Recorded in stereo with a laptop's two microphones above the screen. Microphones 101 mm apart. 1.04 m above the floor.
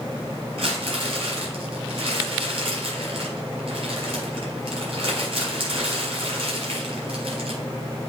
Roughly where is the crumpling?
Right.